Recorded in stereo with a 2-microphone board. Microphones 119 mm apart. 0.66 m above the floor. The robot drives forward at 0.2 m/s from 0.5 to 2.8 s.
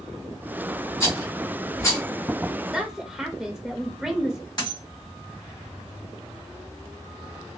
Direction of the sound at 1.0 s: 25° left (ahead or behind).